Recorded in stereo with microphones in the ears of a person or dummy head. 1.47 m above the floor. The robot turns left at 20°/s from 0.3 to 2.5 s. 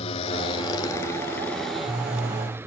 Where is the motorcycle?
30° left; by 2.7 s 15° right.